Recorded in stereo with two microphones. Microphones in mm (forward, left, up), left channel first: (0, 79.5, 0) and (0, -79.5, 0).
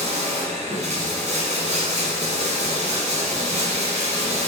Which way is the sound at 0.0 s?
45° right (ahead or behind).